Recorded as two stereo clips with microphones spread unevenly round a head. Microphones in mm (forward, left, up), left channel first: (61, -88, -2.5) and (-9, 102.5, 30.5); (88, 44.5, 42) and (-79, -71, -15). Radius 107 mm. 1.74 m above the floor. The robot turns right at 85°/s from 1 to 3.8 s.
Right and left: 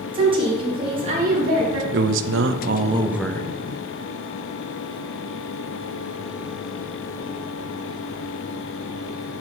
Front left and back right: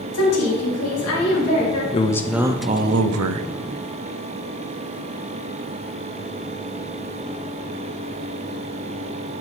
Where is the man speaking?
85° left, 0.6 m; by 3.5 s 140° right, 0.6 m.